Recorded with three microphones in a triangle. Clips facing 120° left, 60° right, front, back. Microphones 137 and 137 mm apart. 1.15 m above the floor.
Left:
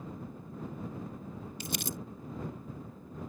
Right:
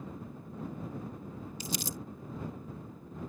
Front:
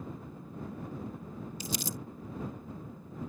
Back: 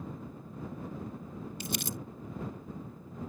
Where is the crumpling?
150° left.